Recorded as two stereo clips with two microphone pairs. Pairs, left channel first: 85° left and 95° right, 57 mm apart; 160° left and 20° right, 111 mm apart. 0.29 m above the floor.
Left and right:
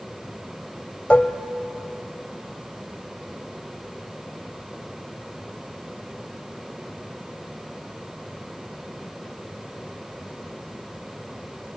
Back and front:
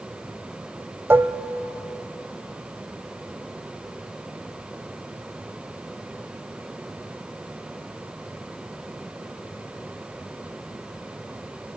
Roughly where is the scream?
No scream in this recording.